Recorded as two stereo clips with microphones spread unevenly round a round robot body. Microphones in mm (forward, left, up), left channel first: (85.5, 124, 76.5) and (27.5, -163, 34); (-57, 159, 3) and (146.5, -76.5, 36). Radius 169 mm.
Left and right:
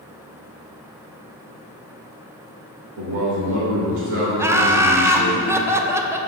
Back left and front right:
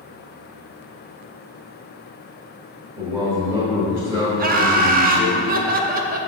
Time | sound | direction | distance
3.0 | a man speaking | 135° right | 2.5 m
4.4 | laughter | 60° right | 0.7 m